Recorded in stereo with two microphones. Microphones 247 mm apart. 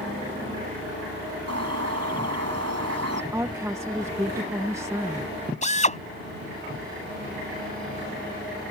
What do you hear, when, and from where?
1.5 s a bird: 85° right
3.3 s a woman speaking: 10° right (ahead or behind)
5.6 s a drill: 30° left (ahead or behind)